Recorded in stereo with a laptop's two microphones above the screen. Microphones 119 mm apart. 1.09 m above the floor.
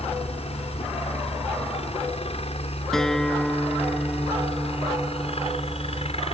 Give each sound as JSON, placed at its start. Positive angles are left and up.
{"t": 0.0, "sound": "a helicopter", "side_deg": 55}
{"t": 2.9, "sound": "a guitar", "side_deg": 5}